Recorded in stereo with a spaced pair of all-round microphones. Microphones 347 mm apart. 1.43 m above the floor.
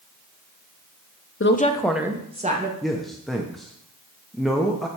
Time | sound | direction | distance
1.4 | a woman speaking | 40° left (ahead or behind) | 0.7 m
2.8 | a man speaking | centre (ahead or behind) | 0.8 m